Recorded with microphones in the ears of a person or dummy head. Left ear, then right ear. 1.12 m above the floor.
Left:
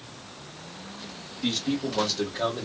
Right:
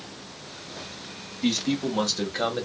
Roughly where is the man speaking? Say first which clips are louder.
Right 2 dB; right.